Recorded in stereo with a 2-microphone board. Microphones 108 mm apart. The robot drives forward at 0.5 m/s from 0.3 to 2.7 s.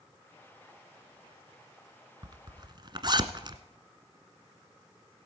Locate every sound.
2.2 s a zipper: 45° right (ahead or behind), 1.0 m